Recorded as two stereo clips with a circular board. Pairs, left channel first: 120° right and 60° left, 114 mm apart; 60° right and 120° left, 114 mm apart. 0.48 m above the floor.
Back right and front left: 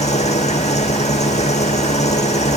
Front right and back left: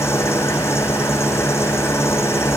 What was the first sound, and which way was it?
An engine running, 125° right.